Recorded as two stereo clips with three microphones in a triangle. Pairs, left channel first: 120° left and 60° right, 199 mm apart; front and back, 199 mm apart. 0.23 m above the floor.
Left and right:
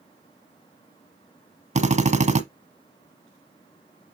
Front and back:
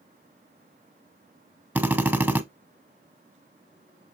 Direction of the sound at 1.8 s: 100° right.